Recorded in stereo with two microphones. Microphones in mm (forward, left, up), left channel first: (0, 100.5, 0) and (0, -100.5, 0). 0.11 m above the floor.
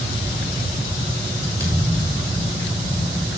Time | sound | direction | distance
1.6 | a thud | 15° right (ahead or behind) | 5.5 m